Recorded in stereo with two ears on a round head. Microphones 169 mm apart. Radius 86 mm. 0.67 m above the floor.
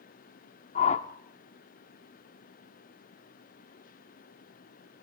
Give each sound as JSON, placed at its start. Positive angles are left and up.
{"t": 0.8, "sound": "a whoosh", "side_deg": 35, "distance_m": 0.7}